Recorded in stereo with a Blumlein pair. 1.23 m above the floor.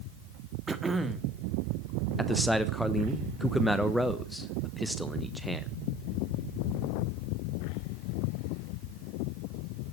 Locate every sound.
0.7 s throat clearing: 10° right, 1.4 m
2.2 s a man speaking: straight ahead, 1.0 m